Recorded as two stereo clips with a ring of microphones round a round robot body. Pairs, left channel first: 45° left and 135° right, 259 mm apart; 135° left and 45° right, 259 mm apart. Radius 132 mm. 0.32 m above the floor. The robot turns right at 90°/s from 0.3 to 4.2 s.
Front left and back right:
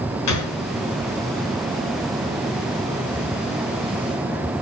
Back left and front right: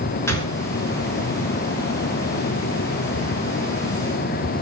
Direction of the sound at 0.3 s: 55° left.